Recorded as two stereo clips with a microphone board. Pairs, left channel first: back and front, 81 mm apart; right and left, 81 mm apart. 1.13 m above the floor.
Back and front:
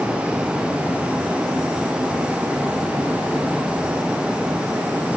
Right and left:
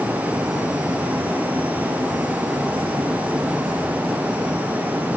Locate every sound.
Only background noise.